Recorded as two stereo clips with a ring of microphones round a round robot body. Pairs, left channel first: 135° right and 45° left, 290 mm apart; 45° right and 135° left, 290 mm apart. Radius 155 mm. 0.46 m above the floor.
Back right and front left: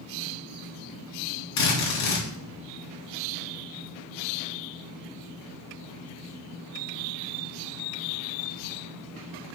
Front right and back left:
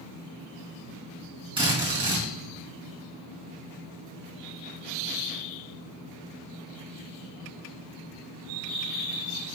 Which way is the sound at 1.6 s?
150° right.